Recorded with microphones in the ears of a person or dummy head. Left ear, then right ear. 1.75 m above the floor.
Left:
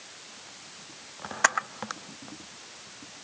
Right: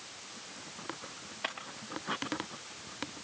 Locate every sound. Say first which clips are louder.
1.4 s a camera shutter: left 15 dB; 50° left (ahead or behind), 0.8 m